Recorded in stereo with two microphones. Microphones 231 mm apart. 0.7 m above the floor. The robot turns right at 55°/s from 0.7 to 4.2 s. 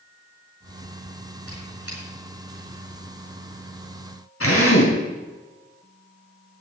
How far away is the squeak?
About 7.5 m.